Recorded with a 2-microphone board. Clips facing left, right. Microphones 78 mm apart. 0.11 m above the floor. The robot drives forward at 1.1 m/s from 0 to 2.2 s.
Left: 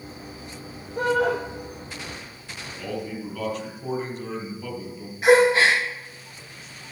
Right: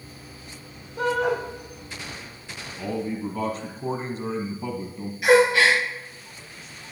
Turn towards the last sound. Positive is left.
turn(degrees=35)  # may be behind; listen again after turning